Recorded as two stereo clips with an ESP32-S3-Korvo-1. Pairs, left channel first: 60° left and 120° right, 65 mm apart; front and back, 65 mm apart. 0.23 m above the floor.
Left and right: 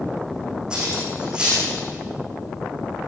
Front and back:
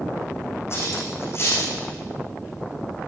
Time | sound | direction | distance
0.7 | cutlery clinking | 45° right | 9 m